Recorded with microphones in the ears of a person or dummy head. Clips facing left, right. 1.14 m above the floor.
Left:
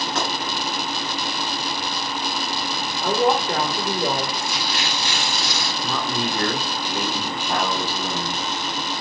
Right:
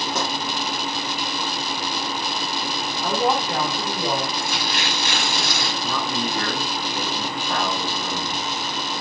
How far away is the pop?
About 2.5 m.